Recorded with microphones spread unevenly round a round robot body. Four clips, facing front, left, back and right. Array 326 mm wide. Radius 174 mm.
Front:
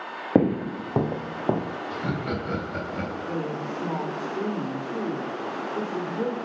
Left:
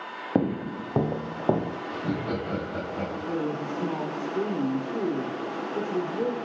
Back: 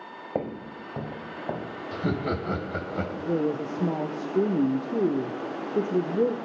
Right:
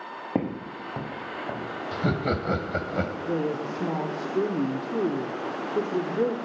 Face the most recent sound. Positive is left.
turn(degrees=-155)